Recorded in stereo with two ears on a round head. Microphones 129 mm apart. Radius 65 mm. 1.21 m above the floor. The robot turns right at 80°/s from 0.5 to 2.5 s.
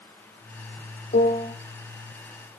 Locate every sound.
1.1 s a piano: 120° left, 1.9 m; by 1.5 s 150° left, 1.9 m